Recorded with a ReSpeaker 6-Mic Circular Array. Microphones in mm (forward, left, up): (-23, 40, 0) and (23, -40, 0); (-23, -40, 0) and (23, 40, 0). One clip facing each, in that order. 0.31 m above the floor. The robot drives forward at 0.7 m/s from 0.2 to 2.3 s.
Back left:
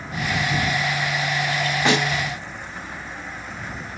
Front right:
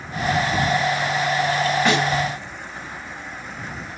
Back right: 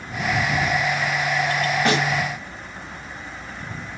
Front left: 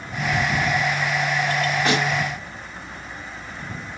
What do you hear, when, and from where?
1.9 s a snare drum: 170° right, 2.5 m